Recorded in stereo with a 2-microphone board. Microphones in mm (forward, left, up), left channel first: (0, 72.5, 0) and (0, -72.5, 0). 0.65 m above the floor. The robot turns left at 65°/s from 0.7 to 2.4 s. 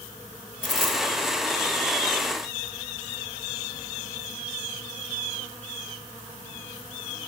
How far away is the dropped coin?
About 1.5 m.